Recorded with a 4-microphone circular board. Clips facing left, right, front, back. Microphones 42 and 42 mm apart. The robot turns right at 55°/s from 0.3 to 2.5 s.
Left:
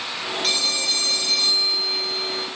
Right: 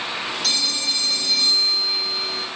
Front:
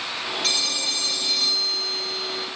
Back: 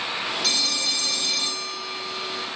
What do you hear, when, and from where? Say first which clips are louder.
0.4 s a phone ringing: left 2 dB, even; 45° left, 0.9 m; by 2.5 s 155° left, 0.9 m